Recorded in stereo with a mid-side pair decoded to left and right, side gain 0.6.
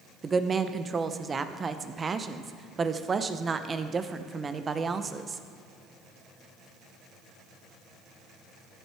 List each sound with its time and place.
0.2 s a woman speaking: 30° right, 0.8 m